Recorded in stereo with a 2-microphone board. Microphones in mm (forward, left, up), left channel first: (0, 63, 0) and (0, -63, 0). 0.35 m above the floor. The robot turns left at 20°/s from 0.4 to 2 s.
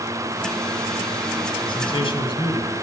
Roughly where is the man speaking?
Left.